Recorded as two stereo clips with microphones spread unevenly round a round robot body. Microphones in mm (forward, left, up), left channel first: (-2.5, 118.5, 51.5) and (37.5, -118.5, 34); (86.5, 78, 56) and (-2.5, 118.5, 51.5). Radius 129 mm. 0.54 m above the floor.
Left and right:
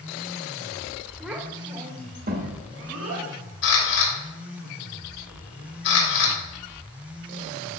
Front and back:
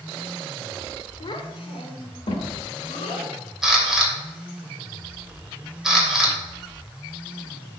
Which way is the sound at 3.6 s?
70° left.